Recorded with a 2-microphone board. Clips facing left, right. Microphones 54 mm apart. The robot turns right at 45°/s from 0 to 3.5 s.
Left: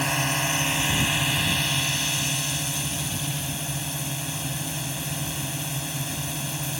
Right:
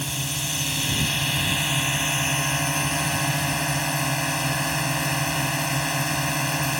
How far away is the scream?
No scream in this recording.